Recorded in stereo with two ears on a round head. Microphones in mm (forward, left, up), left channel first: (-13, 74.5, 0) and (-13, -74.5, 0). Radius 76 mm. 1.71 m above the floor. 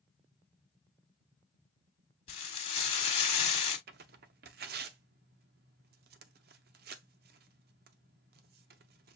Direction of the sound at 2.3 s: 35° left (ahead or behind).